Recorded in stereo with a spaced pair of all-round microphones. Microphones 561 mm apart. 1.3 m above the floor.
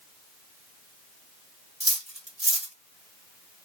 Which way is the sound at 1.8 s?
10° right (ahead or behind).